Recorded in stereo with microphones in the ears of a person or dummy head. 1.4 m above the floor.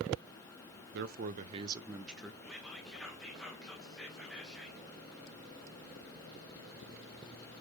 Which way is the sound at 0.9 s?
65° right (ahead or behind).